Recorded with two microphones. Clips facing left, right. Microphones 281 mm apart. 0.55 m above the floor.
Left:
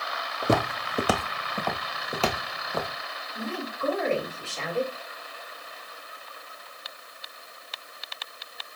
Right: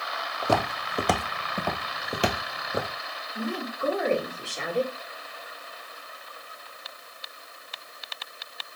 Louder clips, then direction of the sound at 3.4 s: Right 2 dB; 15° right (ahead or behind).